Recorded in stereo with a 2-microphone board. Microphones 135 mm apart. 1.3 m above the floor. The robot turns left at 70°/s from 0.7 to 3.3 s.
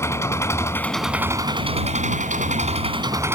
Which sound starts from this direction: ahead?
An engine running, at 0.0 s.